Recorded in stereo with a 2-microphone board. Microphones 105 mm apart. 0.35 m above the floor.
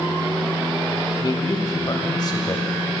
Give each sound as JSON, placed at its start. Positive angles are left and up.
{"t": 1.2, "sound": "a man speaking", "side_deg": 40, "distance_m": 1.7}